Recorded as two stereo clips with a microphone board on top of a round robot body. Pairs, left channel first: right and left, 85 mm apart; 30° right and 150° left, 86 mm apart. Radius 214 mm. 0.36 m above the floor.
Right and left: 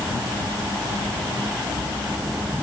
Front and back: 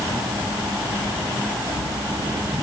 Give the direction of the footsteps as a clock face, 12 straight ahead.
I don't hear footsteps.